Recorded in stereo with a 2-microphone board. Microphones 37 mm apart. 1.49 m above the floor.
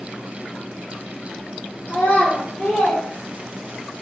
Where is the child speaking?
45° left (ahead or behind), 1.1 m; by 3.9 s 20° right (ahead or behind), 0.9 m.